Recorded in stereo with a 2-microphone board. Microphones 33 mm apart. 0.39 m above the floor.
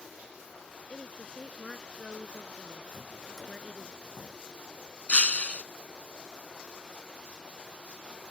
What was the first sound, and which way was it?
A woman speaking, 25° left (ahead or behind).